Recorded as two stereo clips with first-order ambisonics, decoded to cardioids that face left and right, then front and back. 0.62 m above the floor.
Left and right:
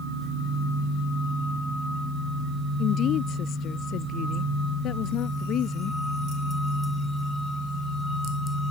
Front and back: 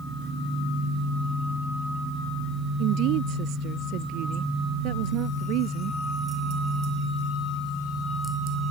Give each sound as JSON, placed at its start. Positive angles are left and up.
{"t": 2.8, "sound": "a woman speaking", "azimuth_deg": 145}